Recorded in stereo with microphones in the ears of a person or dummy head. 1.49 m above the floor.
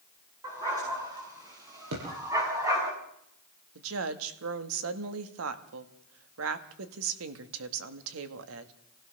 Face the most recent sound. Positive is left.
turn(degrees=-80)